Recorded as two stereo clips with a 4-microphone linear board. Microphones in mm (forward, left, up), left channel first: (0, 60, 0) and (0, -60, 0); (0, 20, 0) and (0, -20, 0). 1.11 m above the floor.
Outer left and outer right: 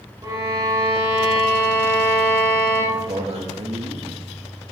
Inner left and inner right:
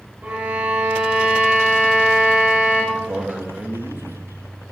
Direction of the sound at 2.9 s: 60° right (ahead or behind).